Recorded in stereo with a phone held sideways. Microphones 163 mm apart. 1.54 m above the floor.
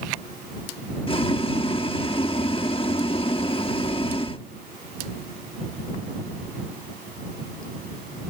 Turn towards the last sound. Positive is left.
turn(degrees=35)  # may be behind; listen again after turning